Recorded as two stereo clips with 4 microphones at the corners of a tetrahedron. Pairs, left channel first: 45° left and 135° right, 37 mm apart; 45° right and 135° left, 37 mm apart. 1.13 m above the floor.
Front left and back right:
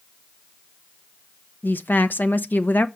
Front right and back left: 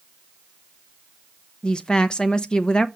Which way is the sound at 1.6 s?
20° left.